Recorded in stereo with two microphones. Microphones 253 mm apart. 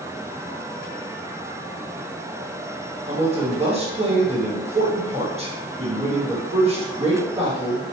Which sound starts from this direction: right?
A man speaking, at 3.1 s.